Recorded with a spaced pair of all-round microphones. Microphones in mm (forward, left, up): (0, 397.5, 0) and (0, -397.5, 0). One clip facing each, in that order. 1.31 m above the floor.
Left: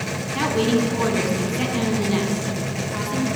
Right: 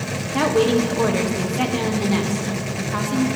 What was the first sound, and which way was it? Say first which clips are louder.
A woman speaking: right 3 dB; 70° right (ahead or behind).